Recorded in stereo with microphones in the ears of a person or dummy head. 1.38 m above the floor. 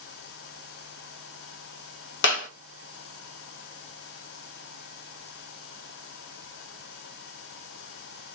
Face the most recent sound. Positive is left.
turn(degrees=70)  # may be behind; listen again after turning